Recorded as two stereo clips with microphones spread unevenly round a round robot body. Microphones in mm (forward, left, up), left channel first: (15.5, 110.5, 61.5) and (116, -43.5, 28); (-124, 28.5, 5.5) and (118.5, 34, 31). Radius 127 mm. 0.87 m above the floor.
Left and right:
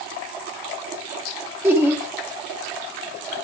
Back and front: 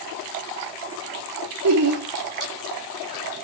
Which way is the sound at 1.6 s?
20° left.